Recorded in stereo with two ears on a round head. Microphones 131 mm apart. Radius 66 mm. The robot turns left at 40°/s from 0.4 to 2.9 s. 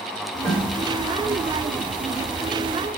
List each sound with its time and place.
0.4 s a snare drum: 30° left (ahead or behind), 1.6 m; by 0.7 s 20° left (ahead or behind), 1.6 m